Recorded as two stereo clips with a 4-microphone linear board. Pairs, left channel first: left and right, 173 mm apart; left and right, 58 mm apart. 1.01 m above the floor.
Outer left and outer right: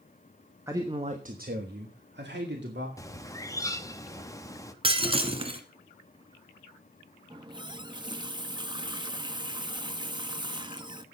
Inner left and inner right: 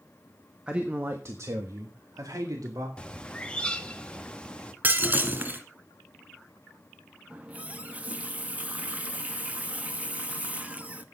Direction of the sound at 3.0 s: 20° left (ahead or behind).